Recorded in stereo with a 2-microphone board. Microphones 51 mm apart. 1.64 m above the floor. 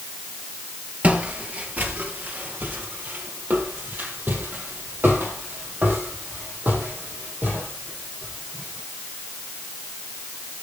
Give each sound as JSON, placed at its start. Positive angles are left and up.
{"t": 1.0, "sound": "footsteps", "side_deg": -30, "distance_m": 1.9}